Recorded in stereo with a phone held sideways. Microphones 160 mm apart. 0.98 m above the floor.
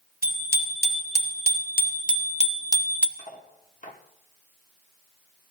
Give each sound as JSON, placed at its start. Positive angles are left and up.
{"t": 0.2, "sound": "a bicycle bell", "side_deg": 85, "distance_m": 3.0}
{"t": 3.2, "sound": "cutlery clinking", "side_deg": 50, "distance_m": 1.4}